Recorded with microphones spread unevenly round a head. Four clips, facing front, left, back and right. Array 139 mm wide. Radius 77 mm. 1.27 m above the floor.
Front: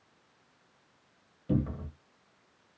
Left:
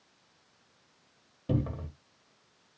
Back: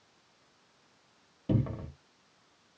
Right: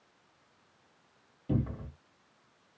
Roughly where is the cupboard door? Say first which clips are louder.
Left 1 dB, even; behind left.